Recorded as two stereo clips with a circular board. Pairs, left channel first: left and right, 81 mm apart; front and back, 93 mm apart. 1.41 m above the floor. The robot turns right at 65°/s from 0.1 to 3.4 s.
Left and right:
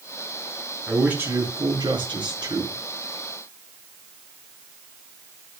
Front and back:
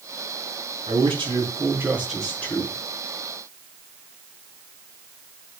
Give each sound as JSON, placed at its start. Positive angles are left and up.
{"t": 0.9, "sound": "a man speaking", "azimuth_deg": -175, "distance_m": 8.0}